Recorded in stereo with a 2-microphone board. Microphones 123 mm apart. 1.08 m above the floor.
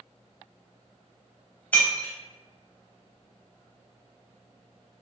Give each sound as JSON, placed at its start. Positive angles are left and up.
{"t": 1.7, "sound": "breaking glass", "side_deg": 10, "distance_m": 0.8}